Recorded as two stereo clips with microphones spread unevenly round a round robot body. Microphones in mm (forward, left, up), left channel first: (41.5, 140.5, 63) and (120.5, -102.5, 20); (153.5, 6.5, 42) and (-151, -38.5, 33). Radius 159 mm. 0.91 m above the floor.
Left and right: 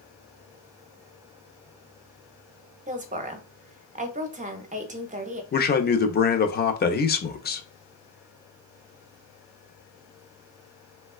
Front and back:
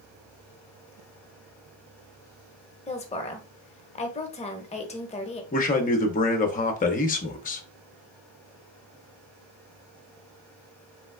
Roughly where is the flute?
I don't hear a flute.